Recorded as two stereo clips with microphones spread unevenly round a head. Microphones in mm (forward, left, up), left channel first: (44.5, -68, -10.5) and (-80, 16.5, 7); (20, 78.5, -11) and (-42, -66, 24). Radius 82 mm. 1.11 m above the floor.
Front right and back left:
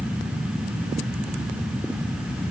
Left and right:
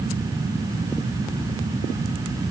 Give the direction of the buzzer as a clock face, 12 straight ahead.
No buzzer in this recording.